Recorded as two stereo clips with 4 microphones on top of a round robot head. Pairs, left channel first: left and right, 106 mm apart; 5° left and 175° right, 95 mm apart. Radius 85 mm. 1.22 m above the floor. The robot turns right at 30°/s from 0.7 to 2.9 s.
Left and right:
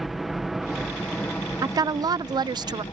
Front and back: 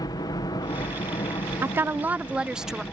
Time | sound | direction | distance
0.0 | a helicopter | 5° right | ?
1.6 | a woman speaking | 125° right | ?